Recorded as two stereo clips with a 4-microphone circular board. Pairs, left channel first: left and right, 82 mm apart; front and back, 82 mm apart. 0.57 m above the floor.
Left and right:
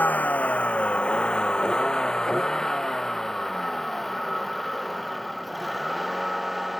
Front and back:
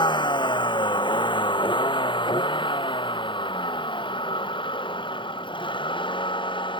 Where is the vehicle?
20° left; by 6.8 s straight ahead.